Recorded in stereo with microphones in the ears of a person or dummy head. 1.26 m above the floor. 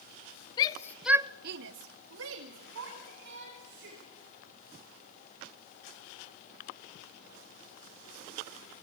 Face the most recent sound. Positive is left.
turn(degrees=-70)  # may be behind; listen again after turning